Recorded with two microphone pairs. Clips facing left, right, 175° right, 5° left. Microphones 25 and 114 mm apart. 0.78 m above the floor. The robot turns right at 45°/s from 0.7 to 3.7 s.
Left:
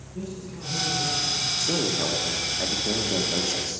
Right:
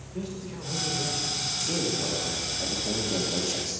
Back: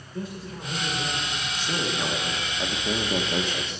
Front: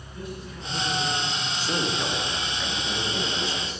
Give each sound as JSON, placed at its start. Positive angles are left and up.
{"t": 0.1, "sound": "a man speaking", "azimuth_deg": -125, "distance_m": 2.5}
{"t": 1.6, "sound": "a man speaking", "azimuth_deg": 75, "distance_m": 1.1}